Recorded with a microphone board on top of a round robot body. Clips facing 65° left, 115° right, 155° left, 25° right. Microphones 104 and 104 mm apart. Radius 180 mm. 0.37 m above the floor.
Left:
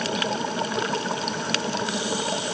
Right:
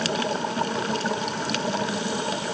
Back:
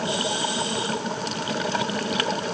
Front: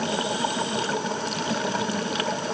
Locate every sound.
Only background noise.